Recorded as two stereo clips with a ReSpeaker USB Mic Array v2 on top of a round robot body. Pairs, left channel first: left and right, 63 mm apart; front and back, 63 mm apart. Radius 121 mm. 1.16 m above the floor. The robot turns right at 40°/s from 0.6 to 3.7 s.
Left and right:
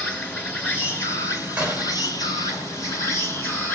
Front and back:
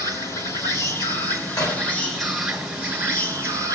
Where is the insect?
20° left, 6 m; by 3.8 s 145° left, 6 m.